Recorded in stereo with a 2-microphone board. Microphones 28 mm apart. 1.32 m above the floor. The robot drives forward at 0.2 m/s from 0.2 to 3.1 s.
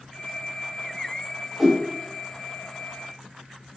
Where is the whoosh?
10° right (ahead or behind), 1.2 m.